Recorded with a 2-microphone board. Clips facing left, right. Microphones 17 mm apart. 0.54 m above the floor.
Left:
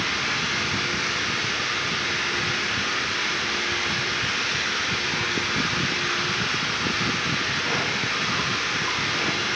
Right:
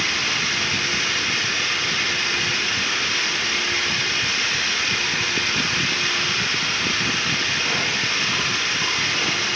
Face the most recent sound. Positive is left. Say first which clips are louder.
# right 3 dB
turn(degrees=-70)  # may be behind; listen again after turning